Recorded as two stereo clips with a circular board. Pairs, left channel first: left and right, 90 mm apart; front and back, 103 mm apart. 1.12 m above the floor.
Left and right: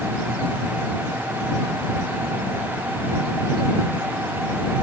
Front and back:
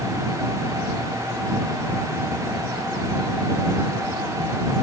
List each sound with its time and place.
Only background noise.